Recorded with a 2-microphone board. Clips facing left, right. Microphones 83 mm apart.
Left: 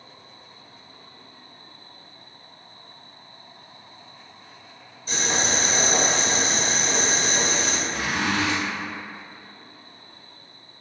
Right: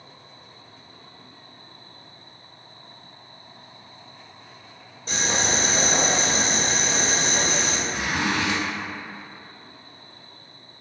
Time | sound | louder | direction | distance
5.1 | boiling | even | 60° right (ahead or behind) | 1.4 m
7.9 | a zipper | even | 15° right (ahead or behind) | 1.1 m